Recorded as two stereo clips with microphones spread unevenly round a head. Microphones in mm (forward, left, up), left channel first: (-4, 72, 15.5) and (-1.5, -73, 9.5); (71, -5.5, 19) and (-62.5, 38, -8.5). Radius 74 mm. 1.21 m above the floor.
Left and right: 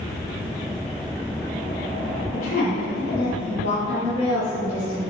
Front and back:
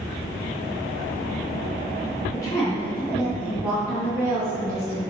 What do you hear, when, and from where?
2.3 s a woman speaking: 45° left, 1.4 m; by 5.1 s 95° left, 2.5 m